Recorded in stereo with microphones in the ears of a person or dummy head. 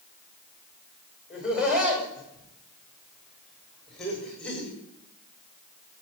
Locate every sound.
1.3 s laughter: 5° right (ahead or behind), 8 m; by 4.7 s 5° left (ahead or behind), 5.5 m